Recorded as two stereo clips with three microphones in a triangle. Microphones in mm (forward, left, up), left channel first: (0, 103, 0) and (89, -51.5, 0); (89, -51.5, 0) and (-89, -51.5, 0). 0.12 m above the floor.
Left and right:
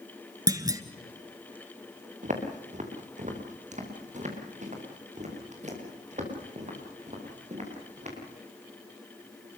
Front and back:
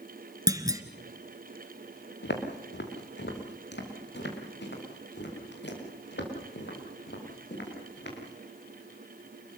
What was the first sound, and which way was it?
A clunk, 120° right.